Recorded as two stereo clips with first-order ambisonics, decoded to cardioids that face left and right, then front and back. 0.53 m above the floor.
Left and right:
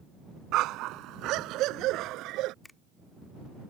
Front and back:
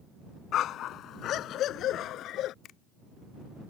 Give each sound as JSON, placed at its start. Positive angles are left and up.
{"t": 0.5, "sound": "a dog barking", "azimuth_deg": -50}
{"t": 2.6, "sound": "a finger snap", "azimuth_deg": 15}